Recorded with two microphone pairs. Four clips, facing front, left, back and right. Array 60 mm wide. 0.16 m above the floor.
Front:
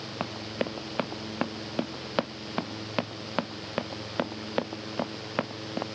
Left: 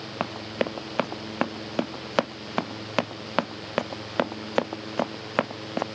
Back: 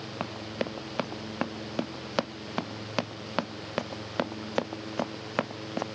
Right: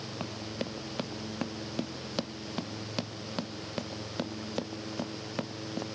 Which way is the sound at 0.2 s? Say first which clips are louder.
Left 10 dB, front 1 dB; 85° left.